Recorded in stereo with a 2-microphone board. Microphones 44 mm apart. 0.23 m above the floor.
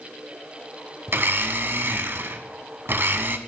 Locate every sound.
1.1 s a blender: 55° right (ahead or behind), 0.6 m